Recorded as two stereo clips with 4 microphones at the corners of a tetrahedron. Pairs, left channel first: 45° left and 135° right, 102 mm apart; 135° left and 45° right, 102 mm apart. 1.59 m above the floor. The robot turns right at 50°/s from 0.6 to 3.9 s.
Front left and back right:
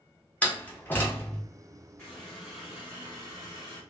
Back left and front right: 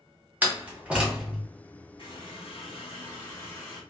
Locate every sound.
0.4 s a door slam: 5° right, 0.8 m; by 1.4 s 35° left, 0.8 m
2.0 s a running tap: 115° left, 1.5 m; by 3.8 s 155° right, 1.5 m